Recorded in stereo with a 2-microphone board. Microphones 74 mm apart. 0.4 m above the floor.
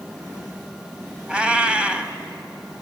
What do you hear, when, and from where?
1.3 s a cat meowing: 15° right (ahead or behind), 1.1 m